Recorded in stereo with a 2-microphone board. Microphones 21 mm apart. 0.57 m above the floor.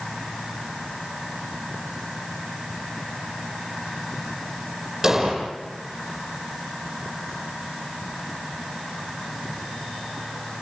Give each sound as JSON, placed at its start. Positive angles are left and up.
{"t": 5.0, "sound": "an explosion", "side_deg": -20, "distance_m": 7.0}